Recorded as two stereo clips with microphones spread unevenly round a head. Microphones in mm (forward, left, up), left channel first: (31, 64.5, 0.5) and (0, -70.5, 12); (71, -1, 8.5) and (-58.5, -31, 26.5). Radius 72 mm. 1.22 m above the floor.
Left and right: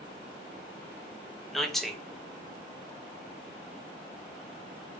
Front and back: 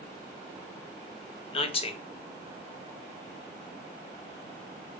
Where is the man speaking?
5° right, 0.5 m.